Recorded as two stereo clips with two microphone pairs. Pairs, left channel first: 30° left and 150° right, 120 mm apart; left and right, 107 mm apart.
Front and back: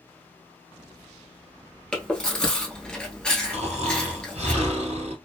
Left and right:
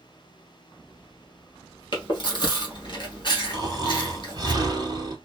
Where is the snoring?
135° right, 0.8 m.